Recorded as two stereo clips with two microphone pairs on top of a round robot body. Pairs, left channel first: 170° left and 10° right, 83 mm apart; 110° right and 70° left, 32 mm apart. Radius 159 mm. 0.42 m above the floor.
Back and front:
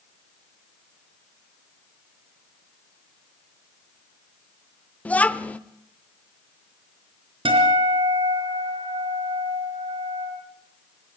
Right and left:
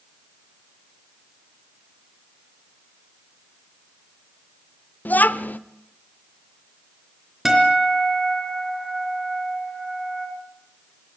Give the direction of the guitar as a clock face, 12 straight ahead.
12 o'clock.